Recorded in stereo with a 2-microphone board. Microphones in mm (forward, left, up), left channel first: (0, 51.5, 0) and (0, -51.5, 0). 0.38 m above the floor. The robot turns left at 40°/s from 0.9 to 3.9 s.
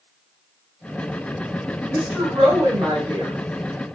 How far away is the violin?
I don't hear a violin.